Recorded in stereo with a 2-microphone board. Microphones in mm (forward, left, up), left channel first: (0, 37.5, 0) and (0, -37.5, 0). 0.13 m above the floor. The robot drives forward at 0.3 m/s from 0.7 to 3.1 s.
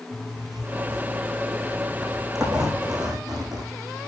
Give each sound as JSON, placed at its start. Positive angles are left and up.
{"t": 0.1, "sound": "a zipper", "side_deg": -5, "distance_m": 4.0}